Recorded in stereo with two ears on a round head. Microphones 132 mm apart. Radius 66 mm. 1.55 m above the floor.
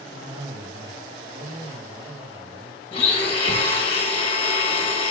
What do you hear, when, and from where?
0.1 s a cough: 25° right (ahead or behind), 1.0 m
2.9 s a blender: 40° left (ahead or behind), 0.9 m